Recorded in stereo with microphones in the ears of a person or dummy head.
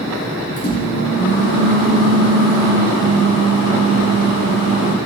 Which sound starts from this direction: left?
A microwave, at 0.6 s.